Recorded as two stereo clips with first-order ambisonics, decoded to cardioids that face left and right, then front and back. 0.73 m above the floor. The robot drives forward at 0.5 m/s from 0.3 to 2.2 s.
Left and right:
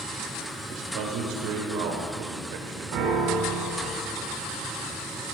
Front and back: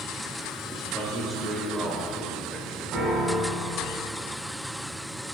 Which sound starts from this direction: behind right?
A piano, at 2.9 s.